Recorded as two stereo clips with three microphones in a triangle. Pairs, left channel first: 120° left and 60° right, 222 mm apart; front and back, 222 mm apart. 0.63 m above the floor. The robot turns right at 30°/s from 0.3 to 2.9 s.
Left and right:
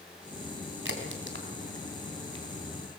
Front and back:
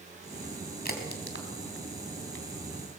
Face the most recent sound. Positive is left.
turn(degrees=20)